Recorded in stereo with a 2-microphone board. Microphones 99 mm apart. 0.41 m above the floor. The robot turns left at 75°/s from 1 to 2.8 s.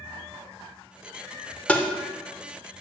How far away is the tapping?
About 0.7 m.